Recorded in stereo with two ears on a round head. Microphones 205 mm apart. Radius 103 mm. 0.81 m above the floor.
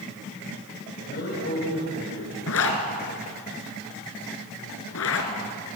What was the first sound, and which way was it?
A man speaking, 45° left (ahead or behind).